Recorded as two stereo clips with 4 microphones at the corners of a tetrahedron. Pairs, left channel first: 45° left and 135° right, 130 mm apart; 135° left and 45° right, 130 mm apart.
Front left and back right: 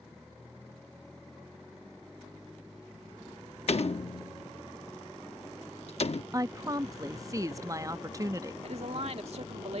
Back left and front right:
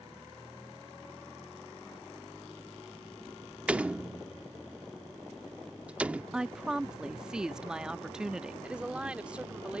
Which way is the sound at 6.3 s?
120° right.